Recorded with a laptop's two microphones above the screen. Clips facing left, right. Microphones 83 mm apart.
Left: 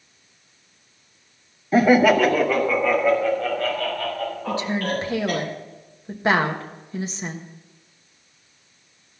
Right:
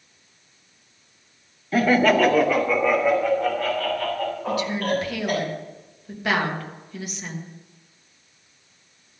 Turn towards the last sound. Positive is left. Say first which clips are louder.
# even
turn(degrees=30)  # may be behind; listen again after turning